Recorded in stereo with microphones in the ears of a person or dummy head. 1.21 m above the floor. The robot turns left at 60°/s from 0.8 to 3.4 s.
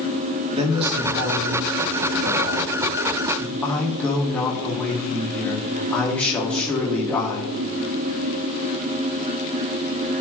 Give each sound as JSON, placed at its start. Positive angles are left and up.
{"t": 0.5, "sound": "a man speaking", "azimuth_deg": -35, "distance_m": 2.5}